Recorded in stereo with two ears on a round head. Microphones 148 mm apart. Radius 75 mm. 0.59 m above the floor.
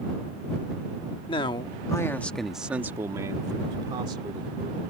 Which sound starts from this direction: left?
A man speaking, at 1.3 s.